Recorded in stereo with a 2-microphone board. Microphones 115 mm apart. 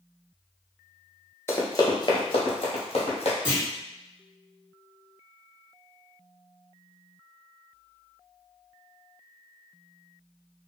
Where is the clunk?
20° left (ahead or behind), 1.4 m.